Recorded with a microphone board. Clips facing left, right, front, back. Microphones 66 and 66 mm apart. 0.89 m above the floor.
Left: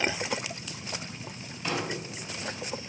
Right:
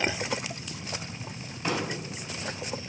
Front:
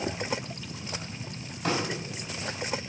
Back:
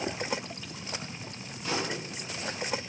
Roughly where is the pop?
Ahead right.